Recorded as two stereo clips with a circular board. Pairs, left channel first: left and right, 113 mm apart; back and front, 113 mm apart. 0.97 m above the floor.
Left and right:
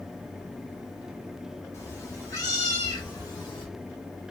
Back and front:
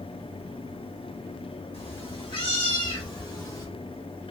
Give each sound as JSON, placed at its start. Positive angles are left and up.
{"t": 1.7, "sound": "a cat meowing", "azimuth_deg": 150, "distance_m": 2.0}